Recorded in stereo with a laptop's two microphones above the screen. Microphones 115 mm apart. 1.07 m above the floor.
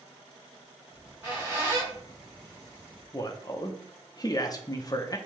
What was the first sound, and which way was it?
A squeak, 25° right (ahead or behind).